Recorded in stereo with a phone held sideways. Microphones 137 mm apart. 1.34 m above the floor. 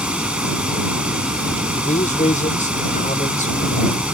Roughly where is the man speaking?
Left.